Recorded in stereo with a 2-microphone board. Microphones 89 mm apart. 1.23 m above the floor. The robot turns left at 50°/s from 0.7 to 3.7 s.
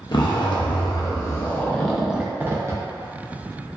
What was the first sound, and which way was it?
A zipper, 60° left.